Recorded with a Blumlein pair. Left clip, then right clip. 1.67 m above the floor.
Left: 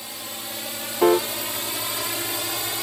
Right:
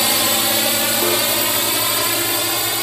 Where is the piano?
20° left.